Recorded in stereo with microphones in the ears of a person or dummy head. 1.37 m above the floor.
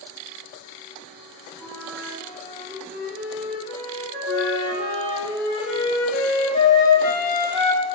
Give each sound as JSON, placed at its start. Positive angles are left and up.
{"t": 1.6, "sound": "a flute", "side_deg": -20, "distance_m": 1.8}
{"t": 4.3, "sound": "a flute", "side_deg": 40, "distance_m": 0.9}